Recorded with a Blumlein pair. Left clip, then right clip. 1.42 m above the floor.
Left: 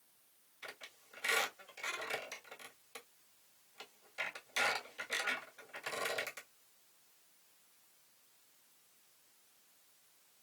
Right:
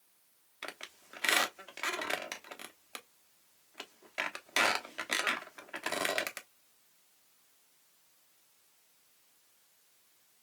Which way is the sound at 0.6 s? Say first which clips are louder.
Right 6 dB; 50° right.